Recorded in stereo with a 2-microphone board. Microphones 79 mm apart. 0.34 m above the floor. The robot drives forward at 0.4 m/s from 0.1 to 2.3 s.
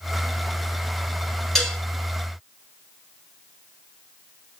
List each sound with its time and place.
1.6 s dishes clattering: 5° left (ahead or behind), 2.5 m